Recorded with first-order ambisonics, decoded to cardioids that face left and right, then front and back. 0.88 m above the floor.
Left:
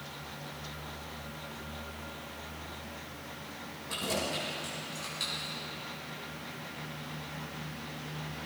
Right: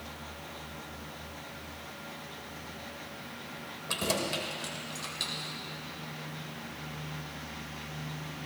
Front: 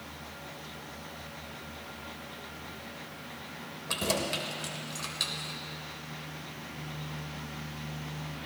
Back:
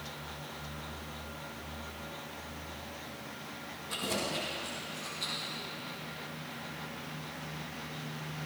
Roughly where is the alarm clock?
I don't hear an alarm clock.